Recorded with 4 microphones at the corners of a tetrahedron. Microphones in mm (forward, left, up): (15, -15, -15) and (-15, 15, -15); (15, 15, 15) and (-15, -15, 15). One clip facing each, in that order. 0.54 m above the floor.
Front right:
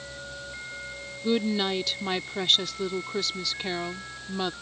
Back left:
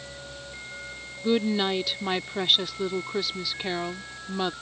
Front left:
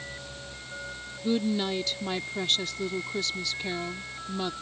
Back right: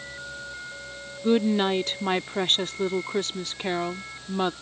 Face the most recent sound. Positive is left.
turn(degrees=-150)